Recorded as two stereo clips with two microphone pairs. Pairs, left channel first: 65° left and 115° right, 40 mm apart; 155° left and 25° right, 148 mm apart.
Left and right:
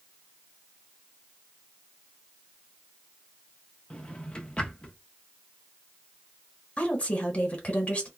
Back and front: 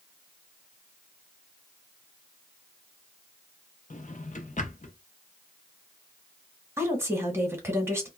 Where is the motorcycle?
I don't hear a motorcycle.